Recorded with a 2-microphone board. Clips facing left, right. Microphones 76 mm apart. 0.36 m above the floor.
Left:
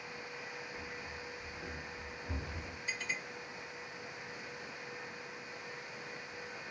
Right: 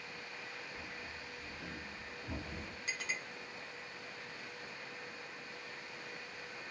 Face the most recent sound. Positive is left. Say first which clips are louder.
# left 1 dB
turn(degrees=-80)